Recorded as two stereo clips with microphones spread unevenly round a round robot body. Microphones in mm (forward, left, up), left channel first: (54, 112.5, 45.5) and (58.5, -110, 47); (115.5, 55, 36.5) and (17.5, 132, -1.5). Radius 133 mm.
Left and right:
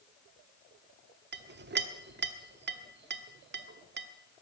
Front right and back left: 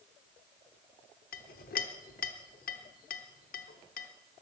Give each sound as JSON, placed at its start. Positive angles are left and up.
{"t": 1.3, "sound": "a clink", "azimuth_deg": -45, "distance_m": 1.1}